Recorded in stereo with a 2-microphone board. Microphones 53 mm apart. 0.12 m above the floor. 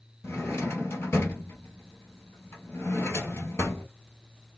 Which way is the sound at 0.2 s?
55° left (ahead or behind).